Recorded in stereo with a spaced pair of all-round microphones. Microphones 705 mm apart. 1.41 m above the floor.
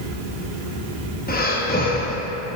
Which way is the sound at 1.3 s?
15° left (ahead or behind).